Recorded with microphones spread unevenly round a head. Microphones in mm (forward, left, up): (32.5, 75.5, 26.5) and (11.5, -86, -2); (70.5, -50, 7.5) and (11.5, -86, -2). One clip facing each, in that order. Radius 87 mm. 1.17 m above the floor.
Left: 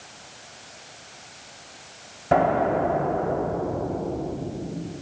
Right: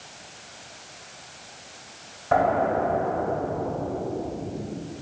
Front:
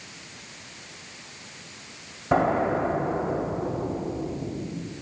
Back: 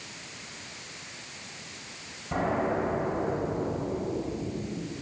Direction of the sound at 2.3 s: 30° left.